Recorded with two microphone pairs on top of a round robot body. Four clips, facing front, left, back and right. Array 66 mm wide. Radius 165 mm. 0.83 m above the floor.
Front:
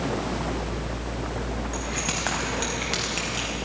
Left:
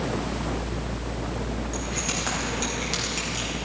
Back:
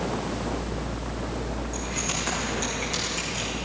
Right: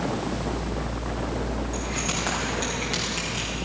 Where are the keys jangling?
10° right, 5 m; by 3.5 s 5° right, 3.5 m.